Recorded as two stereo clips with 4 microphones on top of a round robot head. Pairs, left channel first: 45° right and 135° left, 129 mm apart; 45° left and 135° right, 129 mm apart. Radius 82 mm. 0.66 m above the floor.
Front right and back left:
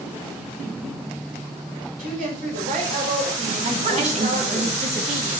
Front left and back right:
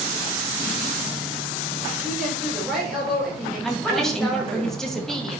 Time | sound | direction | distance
2.0 | a woman speaking | 145° left | 4 m
3.6 | a woman speaking | 130° left | 1.8 m